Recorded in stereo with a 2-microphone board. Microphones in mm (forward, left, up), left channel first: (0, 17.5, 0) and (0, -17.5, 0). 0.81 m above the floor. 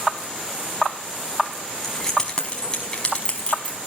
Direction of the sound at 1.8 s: 15° left (ahead or behind).